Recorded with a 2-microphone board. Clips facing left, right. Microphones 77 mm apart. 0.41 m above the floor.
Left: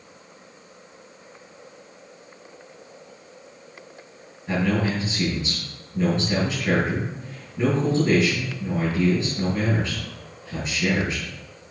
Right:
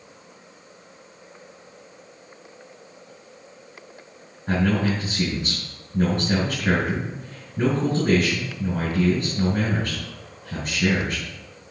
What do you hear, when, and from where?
4.5 s a man speaking: 50° right (ahead or behind), 5 m